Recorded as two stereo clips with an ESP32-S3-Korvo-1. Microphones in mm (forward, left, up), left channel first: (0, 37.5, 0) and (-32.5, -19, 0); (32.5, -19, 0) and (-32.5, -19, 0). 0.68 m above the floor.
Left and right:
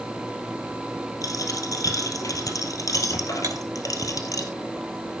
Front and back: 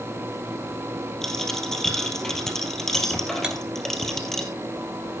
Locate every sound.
1.2 s a dropped coin: 85° left, 2.5 m
3.4 s cutlery clinking: 105° right, 1.8 m